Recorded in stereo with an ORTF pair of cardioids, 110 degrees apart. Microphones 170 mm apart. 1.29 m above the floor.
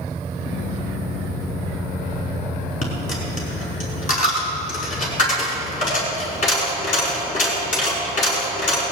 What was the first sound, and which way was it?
A dropped coin, 50° left.